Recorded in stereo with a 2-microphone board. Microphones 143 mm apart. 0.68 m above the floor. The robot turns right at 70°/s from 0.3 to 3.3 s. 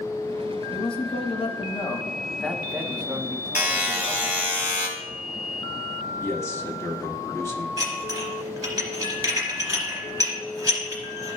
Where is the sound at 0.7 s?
55° left, 1.0 m; by 4.4 s 125° right, 1.0 m.